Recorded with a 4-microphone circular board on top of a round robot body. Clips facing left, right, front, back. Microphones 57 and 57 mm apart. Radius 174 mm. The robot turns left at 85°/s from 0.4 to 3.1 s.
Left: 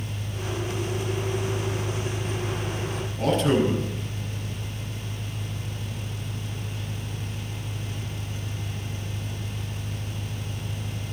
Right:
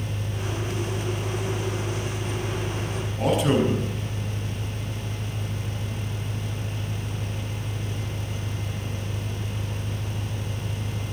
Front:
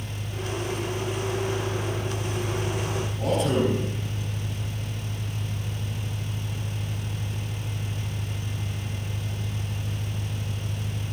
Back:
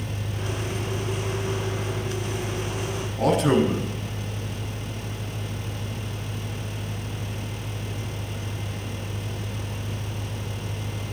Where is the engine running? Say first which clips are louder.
Right 2 dB, back 2 dB; 150° right, 3 m; by 11.1 s 20° right, 3 m.